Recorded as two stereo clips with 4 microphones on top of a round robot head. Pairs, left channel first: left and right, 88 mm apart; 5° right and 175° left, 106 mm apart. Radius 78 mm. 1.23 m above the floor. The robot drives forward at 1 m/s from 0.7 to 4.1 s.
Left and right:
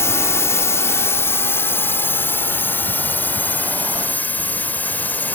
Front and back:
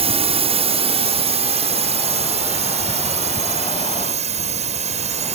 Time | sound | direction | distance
0.0 | a drone | 150° left | ?